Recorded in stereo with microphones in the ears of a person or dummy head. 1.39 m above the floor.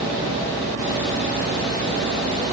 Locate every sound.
Only background noise.